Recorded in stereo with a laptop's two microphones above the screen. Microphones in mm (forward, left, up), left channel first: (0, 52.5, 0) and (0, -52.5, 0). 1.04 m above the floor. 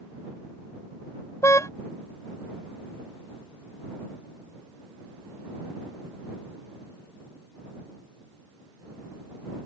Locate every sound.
1.4 s a car horn: 30° left (ahead or behind)